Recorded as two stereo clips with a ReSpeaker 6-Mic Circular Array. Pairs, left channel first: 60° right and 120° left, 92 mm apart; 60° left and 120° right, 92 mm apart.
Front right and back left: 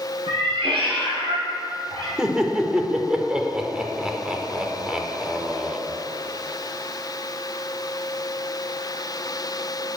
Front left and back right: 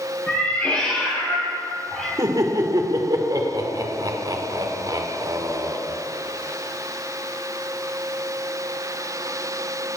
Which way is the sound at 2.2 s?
160° right.